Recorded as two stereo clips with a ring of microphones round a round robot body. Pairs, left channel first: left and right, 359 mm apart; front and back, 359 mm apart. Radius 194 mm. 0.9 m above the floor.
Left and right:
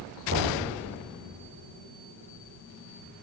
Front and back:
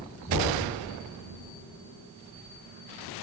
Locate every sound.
0.3 s knocking: 145° right, 1.4 m